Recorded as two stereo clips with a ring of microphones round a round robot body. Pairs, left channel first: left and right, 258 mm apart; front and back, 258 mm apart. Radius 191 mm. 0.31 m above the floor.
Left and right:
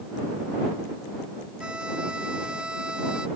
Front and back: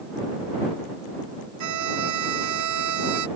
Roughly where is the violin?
Behind.